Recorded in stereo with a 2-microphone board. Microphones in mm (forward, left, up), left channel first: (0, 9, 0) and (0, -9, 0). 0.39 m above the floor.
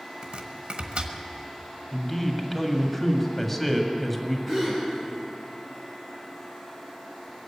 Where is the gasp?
5° left (ahead or behind), 5 m.